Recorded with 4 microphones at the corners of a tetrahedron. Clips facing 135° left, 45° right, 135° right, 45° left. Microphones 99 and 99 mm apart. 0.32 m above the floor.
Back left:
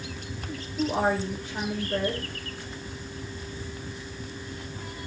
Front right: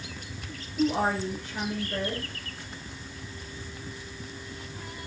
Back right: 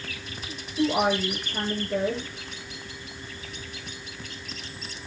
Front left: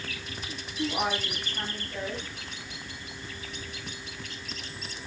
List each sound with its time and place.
0.8 s a woman speaking: 150° right, 8 m